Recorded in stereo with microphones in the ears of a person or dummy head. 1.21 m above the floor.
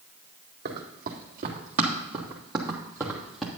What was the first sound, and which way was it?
Running footsteps, 50° right (ahead or behind).